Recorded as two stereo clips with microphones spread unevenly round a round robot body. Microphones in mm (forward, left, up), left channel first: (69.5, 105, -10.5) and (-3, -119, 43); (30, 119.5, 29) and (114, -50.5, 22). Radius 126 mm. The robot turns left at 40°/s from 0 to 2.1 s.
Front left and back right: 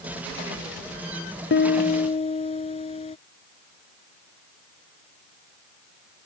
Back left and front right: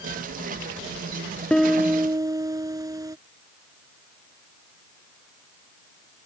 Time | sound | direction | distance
1.5 | a piano | 30° left | ?